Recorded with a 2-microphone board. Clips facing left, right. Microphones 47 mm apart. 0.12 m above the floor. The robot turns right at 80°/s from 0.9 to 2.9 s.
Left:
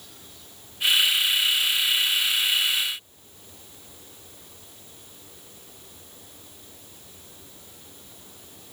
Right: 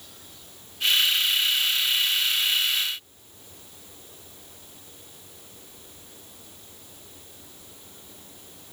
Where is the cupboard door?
I don't hear a cupboard door.